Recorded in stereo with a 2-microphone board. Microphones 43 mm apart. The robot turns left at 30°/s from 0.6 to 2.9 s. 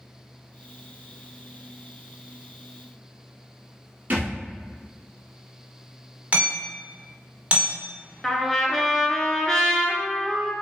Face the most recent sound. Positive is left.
turn(degrees=10)  # may be behind; listen again after turning